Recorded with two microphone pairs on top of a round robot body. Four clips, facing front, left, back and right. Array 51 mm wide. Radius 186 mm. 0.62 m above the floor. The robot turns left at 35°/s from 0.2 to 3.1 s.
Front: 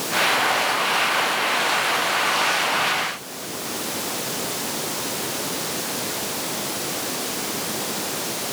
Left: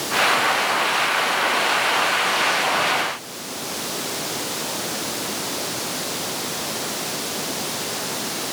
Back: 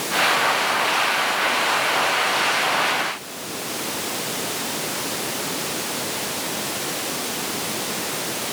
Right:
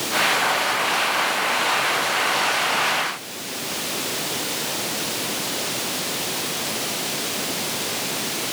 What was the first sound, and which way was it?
Only background noise.